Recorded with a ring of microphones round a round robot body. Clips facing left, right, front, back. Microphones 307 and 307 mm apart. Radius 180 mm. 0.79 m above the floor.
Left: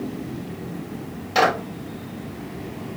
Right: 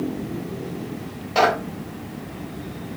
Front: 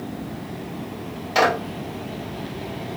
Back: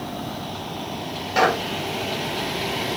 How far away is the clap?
About 3.5 m.